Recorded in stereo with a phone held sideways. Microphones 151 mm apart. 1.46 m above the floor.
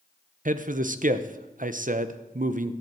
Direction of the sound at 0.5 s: 60° right (ahead or behind).